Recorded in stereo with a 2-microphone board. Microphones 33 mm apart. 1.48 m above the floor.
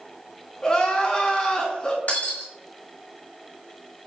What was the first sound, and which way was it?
Crying, 20° left (ahead or behind).